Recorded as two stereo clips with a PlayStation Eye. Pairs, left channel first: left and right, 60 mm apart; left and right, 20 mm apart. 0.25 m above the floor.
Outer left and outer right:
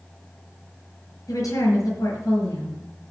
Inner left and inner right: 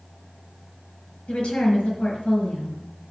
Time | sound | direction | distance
1.3 | a woman speaking | 70° left (ahead or behind) | 5 m